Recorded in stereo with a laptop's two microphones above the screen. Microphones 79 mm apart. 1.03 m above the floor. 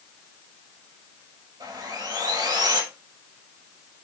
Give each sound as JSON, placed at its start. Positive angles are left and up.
{"t": 1.6, "sound": "sawing", "side_deg": -75, "distance_m": 4.0}